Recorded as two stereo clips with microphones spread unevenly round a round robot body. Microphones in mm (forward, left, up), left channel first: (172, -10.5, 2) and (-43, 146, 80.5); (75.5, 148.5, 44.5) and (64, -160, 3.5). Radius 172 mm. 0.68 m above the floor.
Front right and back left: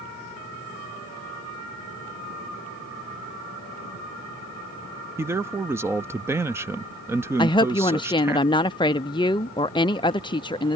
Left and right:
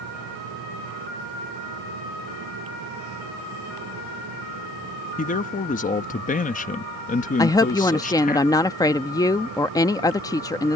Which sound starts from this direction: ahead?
A woman speaking, at 7.4 s.